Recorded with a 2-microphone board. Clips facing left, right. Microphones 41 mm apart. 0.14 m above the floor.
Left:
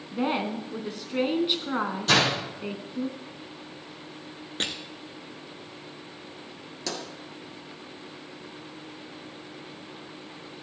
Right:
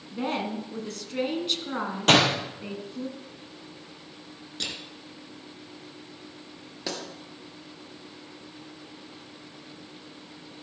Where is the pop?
15° right (ahead or behind), 2.5 m.